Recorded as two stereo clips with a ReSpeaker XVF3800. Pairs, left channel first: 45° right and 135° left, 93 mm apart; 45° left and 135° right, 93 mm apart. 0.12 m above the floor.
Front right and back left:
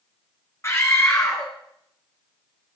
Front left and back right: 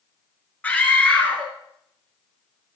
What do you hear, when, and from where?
0.6 s a scream: 15° right, 1.3 m